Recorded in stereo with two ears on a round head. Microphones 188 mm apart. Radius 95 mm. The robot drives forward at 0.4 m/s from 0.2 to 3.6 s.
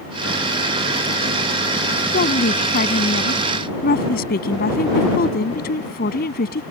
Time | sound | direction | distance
2.1 | a woman speaking | 40° left (ahead or behind) | ?